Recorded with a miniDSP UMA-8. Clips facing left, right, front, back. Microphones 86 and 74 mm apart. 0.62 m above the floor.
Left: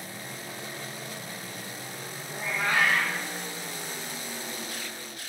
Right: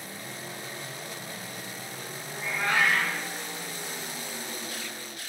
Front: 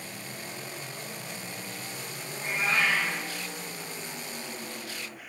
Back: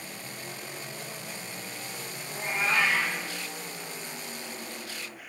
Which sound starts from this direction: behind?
A cat meowing, at 2.3 s.